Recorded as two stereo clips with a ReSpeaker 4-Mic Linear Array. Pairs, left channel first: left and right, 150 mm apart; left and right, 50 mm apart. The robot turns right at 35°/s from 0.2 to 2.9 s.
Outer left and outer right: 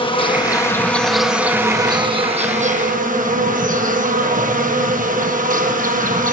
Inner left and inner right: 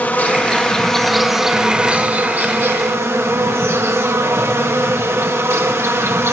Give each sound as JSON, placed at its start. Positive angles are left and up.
{"t": 0.0, "sound": "an insect", "azimuth_deg": 145, "distance_m": 1.4}